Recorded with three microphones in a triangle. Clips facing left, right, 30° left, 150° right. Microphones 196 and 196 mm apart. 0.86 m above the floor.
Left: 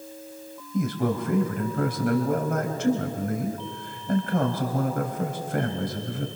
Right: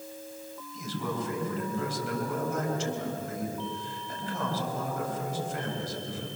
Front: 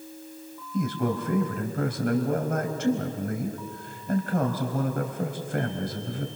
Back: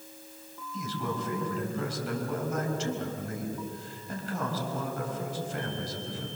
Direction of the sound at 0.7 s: 65° left.